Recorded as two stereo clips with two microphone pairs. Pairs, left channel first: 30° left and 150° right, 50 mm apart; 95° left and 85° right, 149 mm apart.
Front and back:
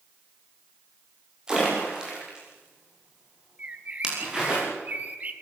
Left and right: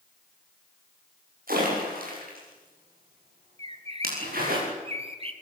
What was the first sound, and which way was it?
A splash, 75° right.